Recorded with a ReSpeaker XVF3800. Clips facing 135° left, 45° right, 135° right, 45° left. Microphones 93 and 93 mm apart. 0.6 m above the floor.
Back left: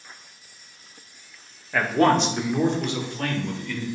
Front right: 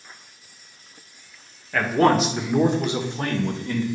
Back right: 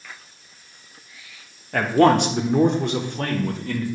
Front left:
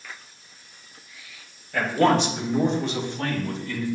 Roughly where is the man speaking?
Behind right.